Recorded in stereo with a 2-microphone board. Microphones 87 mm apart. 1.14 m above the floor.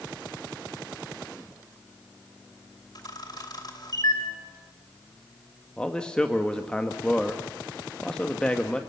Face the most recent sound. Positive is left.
turn(degrees=10)  # may be behind; listen again after turning